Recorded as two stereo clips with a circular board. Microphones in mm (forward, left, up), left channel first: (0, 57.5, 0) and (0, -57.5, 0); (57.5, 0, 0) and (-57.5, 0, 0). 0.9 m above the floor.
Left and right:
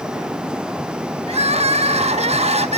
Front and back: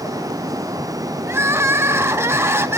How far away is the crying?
About 0.5 m.